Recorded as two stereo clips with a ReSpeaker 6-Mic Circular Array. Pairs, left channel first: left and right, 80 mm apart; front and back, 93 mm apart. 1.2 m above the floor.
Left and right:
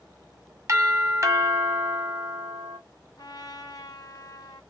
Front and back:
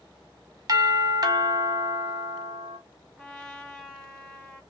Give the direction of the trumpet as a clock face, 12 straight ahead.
9 o'clock.